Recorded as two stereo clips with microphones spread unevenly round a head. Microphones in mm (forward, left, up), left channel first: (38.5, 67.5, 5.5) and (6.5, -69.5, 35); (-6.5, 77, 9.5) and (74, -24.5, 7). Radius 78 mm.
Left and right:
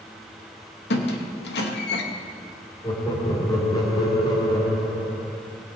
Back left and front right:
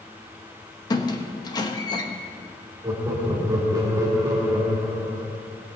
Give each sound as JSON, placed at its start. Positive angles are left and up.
{"t": 0.9, "sound": "a squeak", "azimuth_deg": 75, "distance_m": 1.1}
{"t": 2.8, "sound": "laughter", "azimuth_deg": 15, "distance_m": 2.5}